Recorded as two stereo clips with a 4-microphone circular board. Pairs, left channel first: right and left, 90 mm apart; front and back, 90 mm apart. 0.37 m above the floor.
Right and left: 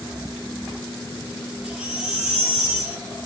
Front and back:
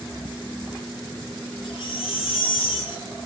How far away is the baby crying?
About 3.5 m.